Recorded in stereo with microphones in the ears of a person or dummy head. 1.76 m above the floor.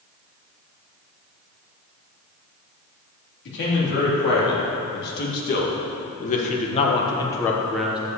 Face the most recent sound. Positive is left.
turn(degrees=-5)  # may be behind; listen again after turning